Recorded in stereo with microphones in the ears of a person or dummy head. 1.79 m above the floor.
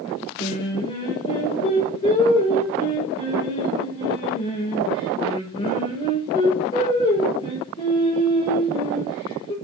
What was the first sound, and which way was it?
Singing, 25° left (ahead or behind).